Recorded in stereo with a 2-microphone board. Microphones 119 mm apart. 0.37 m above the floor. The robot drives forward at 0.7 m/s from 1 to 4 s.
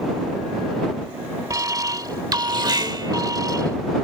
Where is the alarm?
30° right (ahead or behind).